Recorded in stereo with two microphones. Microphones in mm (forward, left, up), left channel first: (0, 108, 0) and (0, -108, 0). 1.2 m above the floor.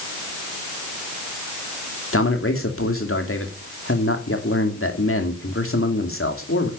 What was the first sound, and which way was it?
A man speaking, 65° left (ahead or behind).